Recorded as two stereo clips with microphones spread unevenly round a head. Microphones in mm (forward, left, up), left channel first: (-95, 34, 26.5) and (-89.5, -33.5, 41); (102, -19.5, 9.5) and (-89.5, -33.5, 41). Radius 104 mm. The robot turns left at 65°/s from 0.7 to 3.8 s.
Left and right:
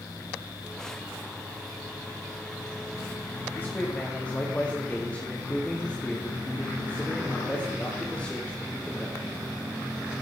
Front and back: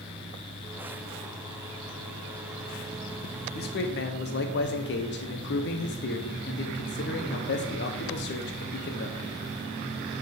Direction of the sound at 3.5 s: 40° left.